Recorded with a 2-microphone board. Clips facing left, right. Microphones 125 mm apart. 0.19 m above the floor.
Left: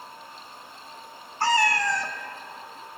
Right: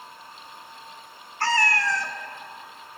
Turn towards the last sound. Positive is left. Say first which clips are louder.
# left 1 dB
turn(degrees=15)  # may be behind; listen again after turning